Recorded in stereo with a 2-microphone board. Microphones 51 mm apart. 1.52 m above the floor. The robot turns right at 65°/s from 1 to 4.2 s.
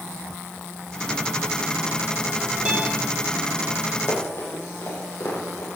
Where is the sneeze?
No sneeze in this recording.